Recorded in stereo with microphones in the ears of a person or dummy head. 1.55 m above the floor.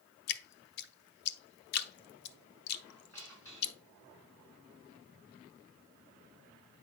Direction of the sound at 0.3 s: 55° left (ahead or behind).